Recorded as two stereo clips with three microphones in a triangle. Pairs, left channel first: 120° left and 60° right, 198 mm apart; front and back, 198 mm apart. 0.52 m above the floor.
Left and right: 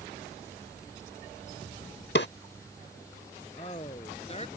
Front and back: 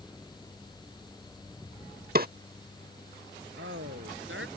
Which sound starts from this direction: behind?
A woman speaking, at 3.6 s.